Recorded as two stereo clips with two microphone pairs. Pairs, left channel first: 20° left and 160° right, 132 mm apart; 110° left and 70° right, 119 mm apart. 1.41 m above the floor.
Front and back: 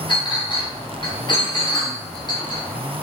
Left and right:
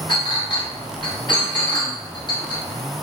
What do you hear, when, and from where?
0.1 s a clink: 70° left, 1.2 m